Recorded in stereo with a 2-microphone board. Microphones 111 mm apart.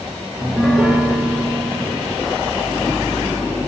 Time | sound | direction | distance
0.4 | a piano | 5° right (ahead or behind) | 0.5 m